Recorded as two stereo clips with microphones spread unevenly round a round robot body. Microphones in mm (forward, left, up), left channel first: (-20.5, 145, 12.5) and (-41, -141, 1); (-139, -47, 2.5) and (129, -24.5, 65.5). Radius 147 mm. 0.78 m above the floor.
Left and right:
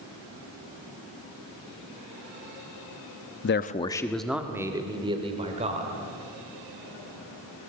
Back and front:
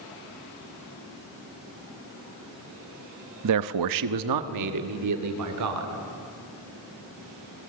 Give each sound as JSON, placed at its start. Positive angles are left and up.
{"t": 3.4, "sound": "a man speaking", "azimuth_deg": 35, "distance_m": 0.8}